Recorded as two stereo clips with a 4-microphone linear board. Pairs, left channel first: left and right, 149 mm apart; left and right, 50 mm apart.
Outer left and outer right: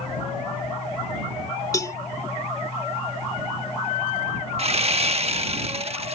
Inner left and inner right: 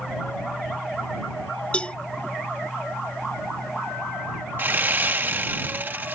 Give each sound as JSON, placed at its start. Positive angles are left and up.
{"t": 1.7, "sound": "a cowbell", "side_deg": 25}
{"t": 4.6, "sound": "sawing", "side_deg": -45}